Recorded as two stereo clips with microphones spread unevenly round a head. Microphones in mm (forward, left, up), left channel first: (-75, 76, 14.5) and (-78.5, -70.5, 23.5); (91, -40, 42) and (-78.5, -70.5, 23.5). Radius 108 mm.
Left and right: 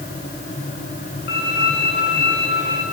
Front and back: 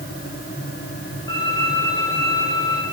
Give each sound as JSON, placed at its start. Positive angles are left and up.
{"t": 1.3, "sound": "a violin", "azimuth_deg": 80, "distance_m": 6.0}